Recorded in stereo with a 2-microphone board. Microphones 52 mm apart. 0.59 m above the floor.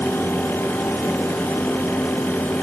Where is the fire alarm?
No fire alarm in this recording.